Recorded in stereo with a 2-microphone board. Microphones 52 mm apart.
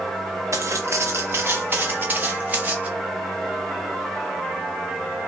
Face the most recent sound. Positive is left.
turn(degrees=-30)  # may be behind; listen again after turning